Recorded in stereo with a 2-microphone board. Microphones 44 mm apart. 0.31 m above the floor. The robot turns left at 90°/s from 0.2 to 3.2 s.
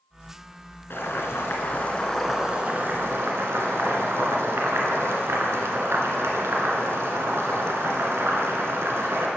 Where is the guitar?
No guitar in this recording.